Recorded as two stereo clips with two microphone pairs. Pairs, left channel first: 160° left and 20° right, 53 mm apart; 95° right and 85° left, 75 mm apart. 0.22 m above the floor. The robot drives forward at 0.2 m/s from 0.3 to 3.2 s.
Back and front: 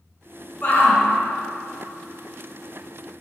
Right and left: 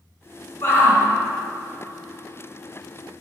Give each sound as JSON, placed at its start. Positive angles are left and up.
{"t": 0.6, "sound": "a shout", "azimuth_deg": -145, "distance_m": 2.0}